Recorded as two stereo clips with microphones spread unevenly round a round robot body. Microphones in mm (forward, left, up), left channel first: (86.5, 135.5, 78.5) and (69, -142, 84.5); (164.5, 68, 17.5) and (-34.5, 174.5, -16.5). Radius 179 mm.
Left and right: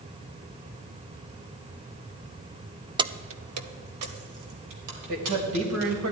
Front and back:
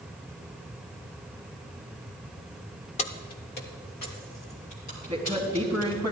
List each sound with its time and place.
3.0 s keys jangling: 45° right, 0.6 m; by 6.0 s 95° right, 4 m
5.1 s a man speaking: 130° right, 2.5 m